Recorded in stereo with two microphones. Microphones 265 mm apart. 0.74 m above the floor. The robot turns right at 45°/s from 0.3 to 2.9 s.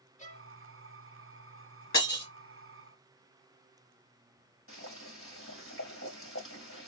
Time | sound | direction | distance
0.2 | a violin | 25° left (ahead or behind) | 0.9 m
1.9 | breaking glass | 80° left | 3 m
4.7 | boiling | 55° left (ahead or behind) | 3 m